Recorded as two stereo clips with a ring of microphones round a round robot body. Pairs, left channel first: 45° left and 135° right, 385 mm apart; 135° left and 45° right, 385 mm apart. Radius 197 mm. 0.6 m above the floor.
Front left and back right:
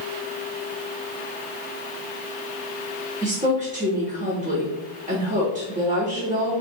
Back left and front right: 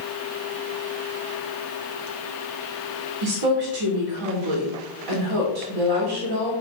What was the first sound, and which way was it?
A woman speaking, 65° right.